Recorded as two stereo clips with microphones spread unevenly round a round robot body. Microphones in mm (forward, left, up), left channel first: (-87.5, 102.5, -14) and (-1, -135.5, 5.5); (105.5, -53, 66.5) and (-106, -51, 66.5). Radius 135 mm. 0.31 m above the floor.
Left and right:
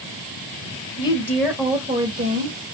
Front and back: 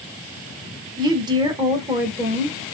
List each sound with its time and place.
1.0 s a woman speaking: 135° left, 0.9 m; by 2.6 s 105° right, 1.2 m